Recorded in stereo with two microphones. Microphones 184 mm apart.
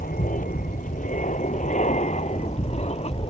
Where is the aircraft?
50° left (ahead or behind); by 3.3 s 35° left (ahead or behind).